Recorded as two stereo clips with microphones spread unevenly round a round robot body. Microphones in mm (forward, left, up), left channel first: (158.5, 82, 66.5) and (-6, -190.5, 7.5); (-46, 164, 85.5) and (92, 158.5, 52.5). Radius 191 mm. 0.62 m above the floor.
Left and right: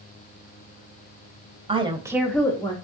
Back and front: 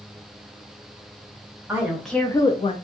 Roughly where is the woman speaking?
Ahead right.